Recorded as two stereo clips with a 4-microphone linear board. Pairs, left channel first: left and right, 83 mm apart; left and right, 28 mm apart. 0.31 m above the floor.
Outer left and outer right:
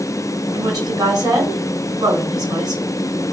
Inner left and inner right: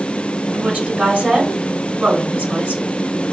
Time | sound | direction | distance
0.5 | a woman speaking | 55° right (ahead or behind) | 2.5 m